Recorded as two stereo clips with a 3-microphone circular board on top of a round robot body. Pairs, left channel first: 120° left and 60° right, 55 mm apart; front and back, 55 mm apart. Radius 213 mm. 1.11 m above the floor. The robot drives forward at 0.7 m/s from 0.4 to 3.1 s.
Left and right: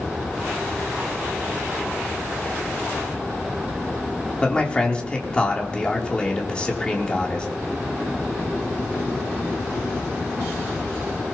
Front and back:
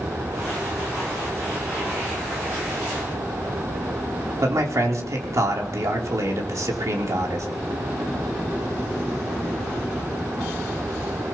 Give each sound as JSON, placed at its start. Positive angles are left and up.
{"t": 4.4, "sound": "a man speaking", "azimuth_deg": -170, "distance_m": 3.0}